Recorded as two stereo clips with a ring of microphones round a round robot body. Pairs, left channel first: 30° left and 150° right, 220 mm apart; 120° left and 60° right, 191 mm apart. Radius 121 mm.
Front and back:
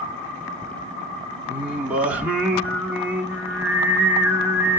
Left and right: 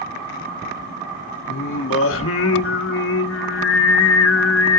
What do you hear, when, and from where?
1.5 s singing: 125° left, 1.0 m